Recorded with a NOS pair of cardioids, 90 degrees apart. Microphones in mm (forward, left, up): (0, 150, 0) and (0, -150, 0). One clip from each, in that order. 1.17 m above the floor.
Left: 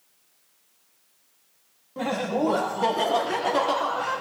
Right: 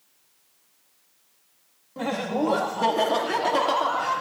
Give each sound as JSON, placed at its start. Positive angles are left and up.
{"t": 2.0, "sound": "laughter", "azimuth_deg": 5, "distance_m": 1.5}